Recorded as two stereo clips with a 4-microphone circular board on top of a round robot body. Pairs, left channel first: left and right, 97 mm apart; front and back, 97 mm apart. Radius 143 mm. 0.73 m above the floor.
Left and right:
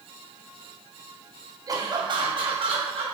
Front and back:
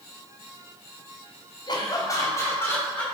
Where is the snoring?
No snoring in this recording.